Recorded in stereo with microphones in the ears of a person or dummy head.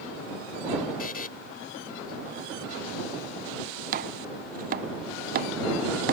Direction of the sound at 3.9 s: 40° right (ahead or behind).